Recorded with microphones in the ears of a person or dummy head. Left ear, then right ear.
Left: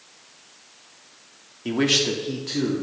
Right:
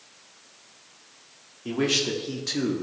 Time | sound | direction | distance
1.6 | a man speaking | 25° left (ahead or behind) | 0.9 m